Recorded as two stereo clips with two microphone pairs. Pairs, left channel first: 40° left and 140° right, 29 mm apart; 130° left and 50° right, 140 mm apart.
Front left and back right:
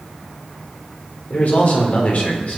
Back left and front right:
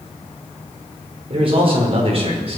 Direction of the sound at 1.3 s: Straight ahead.